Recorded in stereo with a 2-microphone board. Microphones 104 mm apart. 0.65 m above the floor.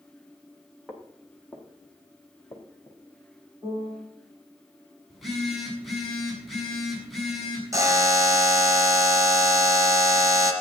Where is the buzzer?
30° right (ahead or behind), 2.5 m.